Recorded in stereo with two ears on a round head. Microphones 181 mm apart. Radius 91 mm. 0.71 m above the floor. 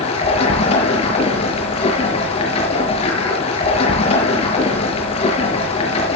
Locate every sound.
0.0 s running water: 30° left (ahead or behind), 6 m